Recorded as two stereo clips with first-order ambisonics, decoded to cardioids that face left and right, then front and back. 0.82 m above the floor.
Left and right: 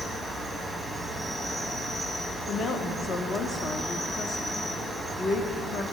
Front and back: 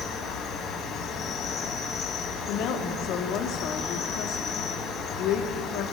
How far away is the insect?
About 1.4 m.